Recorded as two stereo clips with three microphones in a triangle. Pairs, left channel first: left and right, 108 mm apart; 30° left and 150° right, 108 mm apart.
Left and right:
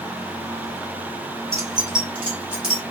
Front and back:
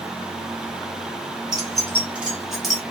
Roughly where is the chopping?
I don't hear chopping.